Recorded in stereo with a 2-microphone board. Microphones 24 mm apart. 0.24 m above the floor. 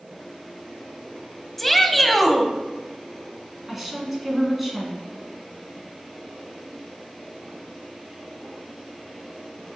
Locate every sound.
1.6 s a shout: 5° left (ahead or behind), 1.1 m
3.7 s a woman speaking: 10° right (ahead or behind), 2.5 m